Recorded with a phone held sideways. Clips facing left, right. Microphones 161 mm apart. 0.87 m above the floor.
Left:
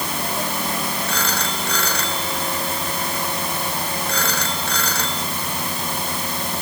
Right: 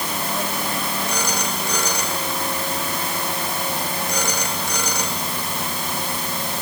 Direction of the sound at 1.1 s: 15° right (ahead or behind).